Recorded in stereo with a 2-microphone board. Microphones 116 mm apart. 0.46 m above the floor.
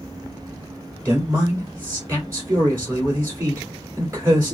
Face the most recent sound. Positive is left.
turn(degrees=-20)  # may be behind; listen again after turning